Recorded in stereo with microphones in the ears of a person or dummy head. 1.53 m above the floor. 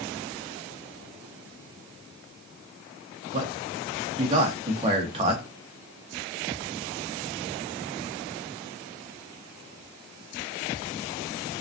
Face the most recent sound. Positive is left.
turn(degrees=-30)  # may be behind; listen again after turning